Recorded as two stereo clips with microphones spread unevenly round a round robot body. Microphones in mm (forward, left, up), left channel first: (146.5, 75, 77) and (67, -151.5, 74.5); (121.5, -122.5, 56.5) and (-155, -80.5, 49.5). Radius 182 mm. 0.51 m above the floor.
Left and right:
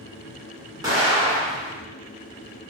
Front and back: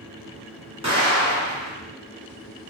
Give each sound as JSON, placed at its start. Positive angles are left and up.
{"t": 0.8, "sound": "an explosion", "azimuth_deg": -155, "distance_m": 1.3}